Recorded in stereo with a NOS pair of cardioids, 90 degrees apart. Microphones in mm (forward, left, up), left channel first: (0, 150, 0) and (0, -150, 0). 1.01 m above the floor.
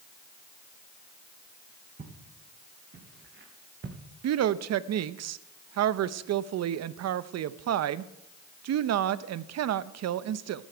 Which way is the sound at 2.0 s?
35° right.